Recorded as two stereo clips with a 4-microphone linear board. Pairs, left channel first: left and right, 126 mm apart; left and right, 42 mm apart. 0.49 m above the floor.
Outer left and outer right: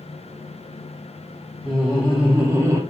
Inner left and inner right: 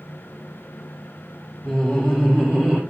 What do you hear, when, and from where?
1.6 s laughter: 10° left (ahead or behind), 1.4 m; by 2.8 s 25° right (ahead or behind), 0.9 m